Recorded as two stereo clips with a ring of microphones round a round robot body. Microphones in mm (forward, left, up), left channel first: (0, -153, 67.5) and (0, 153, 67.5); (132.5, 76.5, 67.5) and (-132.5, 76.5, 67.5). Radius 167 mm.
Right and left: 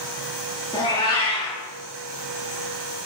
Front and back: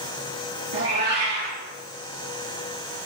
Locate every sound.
0.7 s a cat meowing: 165° right, 3.5 m